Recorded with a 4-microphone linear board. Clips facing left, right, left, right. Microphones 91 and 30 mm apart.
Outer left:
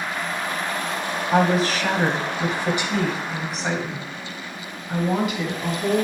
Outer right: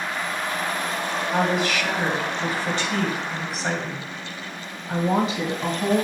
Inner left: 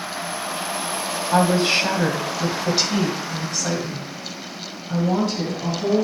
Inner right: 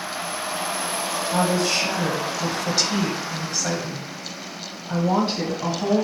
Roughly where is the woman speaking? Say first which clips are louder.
Outer left 4 dB, inner left 4 dB; left.